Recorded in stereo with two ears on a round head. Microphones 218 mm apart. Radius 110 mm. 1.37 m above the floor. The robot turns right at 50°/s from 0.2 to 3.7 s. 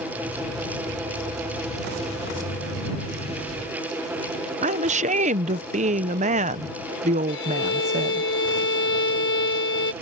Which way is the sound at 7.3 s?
55° left (ahead or behind).